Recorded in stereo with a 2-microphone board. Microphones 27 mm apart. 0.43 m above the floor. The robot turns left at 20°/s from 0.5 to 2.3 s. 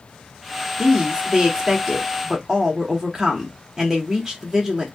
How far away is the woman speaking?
About 1.0 m.